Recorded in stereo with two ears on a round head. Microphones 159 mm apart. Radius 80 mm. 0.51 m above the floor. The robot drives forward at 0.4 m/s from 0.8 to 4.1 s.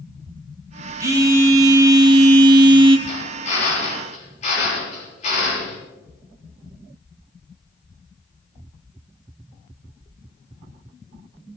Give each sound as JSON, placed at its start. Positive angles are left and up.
{"t": 1.0, "sound": "a phone buzzing", "side_deg": -15, "distance_m": 1.4}
{"t": 3.1, "sound": "a drill", "side_deg": 45, "distance_m": 8.0}